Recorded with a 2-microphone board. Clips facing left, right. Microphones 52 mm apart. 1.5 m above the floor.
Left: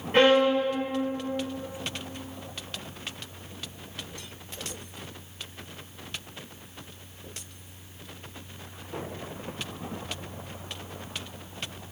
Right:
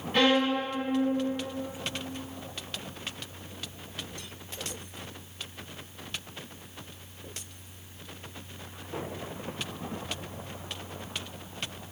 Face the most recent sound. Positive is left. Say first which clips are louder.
# left 5 dB
turn(degrees=50)  # may be behind; listen again after turning